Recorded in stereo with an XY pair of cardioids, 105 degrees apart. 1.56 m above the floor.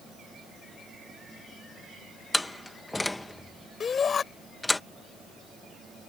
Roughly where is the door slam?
Ahead.